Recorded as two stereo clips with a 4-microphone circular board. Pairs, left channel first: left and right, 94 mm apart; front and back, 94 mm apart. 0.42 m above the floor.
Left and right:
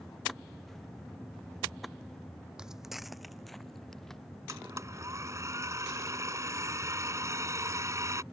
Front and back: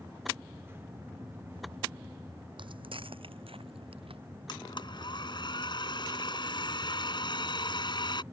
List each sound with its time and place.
2.6 s footsteps: 170° right; by 4.2 s 175° left
4.5 s a blender: 35° right